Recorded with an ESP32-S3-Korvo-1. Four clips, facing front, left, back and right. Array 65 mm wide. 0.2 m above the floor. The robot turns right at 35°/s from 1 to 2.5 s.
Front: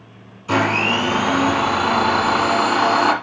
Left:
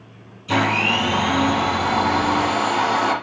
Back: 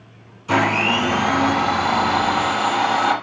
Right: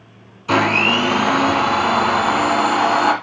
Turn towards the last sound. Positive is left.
turn(degrees=-35)